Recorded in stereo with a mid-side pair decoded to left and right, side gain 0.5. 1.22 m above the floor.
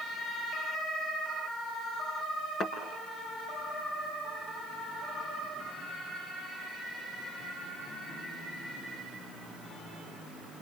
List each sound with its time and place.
2.6 s a thud: 65° left, 6.5 m